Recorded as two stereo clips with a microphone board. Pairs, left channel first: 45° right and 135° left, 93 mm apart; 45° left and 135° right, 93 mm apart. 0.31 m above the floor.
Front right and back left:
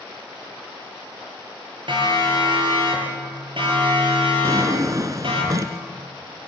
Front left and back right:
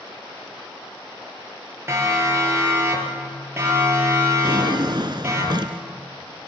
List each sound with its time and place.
1.9 s a siren: 160° left, 7 m
4.4 s a drawer: 175° right, 1.5 m